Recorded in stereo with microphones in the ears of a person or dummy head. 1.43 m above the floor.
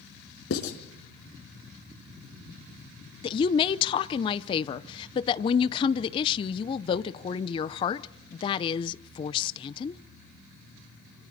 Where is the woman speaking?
30° left (ahead or behind), 0.6 m.